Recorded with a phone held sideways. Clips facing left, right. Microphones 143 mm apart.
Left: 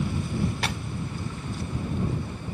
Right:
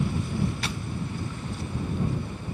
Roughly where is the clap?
Left.